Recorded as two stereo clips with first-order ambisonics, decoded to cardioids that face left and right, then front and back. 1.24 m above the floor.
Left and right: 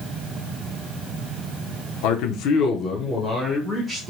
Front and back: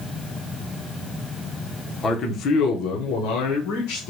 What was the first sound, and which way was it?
A man speaking, 70° left.